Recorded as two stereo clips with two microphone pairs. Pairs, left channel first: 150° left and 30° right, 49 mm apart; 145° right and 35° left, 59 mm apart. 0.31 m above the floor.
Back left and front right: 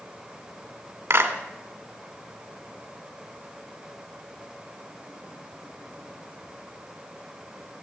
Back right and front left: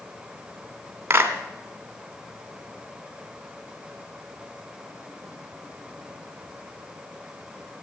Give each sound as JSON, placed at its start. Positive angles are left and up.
{"t": 1.1, "sound": "a clap", "azimuth_deg": -20, "distance_m": 2.0}